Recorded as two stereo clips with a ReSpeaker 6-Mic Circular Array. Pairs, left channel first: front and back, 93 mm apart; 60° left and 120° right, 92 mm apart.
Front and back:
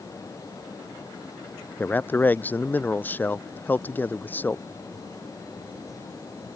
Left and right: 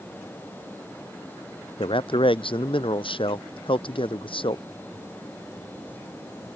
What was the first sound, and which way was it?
A man speaking, 70° left.